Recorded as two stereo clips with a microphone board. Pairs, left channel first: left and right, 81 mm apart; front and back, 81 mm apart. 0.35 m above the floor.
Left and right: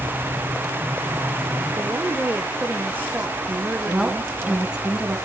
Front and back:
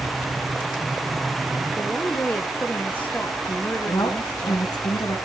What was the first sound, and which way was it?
A woman speaking, 45° right.